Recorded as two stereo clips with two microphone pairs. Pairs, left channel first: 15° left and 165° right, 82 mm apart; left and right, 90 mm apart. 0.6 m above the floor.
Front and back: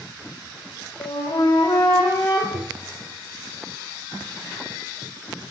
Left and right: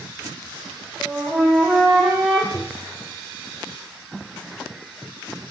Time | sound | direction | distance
1.0 | a flute | 10° right | 4 m
2.5 | tapping | straight behind | 0.7 m